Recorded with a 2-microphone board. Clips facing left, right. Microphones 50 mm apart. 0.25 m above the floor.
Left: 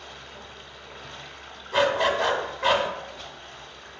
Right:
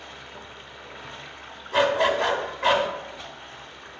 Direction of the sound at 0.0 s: 15° right (ahead or behind).